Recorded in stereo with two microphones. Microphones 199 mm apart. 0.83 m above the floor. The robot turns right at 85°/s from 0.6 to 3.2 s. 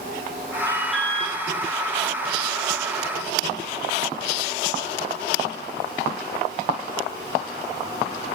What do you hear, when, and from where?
0.7 s an alarm: 20° right, 3.5 m; by 1.4 s 35° left, 3.5 m